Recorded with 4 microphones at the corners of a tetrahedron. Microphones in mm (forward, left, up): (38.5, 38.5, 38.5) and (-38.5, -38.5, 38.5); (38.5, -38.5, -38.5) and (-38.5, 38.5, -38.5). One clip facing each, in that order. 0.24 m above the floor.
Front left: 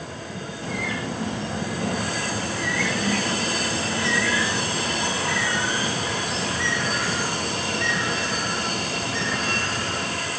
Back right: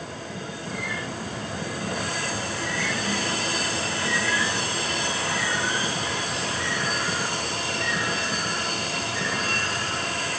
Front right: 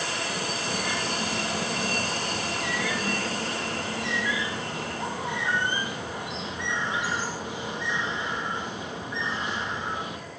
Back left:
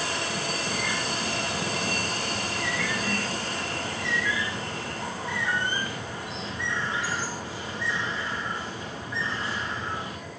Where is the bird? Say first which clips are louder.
Front left 5 dB, even; 25° left, 5 m.